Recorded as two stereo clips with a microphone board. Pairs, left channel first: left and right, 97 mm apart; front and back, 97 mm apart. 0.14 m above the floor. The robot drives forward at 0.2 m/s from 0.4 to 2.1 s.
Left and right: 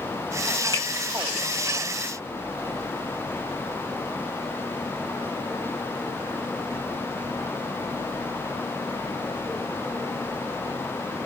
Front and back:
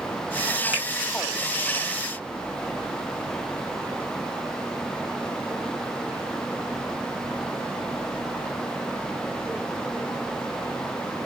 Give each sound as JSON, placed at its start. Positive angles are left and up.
{"t": 0.7, "sound": "a finger snap", "azimuth_deg": 115, "distance_m": 1.8}